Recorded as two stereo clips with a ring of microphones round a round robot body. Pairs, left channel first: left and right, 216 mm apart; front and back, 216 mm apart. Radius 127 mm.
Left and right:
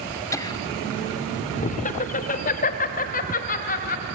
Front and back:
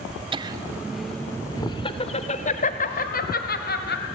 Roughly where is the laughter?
Behind left.